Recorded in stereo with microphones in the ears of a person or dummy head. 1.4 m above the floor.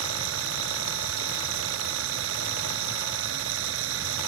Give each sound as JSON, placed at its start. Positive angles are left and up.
{"t": 0.0, "sound": "running water", "side_deg": -80}